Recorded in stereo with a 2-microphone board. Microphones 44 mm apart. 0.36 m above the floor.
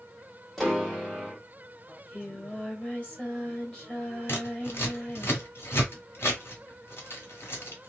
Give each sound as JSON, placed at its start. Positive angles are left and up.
{"t": 0.6, "sound": "a piano", "side_deg": 0, "distance_m": 1.3}
{"t": 1.9, "sound": "singing", "side_deg": 25, "distance_m": 1.6}
{"t": 4.3, "sound": "scissors", "side_deg": 65, "distance_m": 1.9}